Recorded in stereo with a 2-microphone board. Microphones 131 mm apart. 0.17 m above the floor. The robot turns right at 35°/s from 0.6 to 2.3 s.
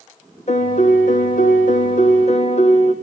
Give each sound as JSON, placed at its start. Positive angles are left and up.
{"t": 0.5, "sound": "a piano", "azimuth_deg": 60, "distance_m": 2.0}